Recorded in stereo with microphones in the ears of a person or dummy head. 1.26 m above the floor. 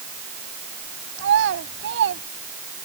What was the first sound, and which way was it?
A child speaking, 75° right (ahead or behind).